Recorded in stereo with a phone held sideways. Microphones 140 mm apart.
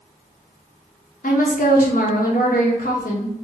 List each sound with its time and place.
1.2 s a woman speaking: 75° left (ahead or behind), 1.0 m